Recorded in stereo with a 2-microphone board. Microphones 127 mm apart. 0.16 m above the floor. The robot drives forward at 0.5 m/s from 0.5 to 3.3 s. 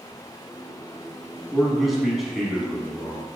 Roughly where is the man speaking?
Centre.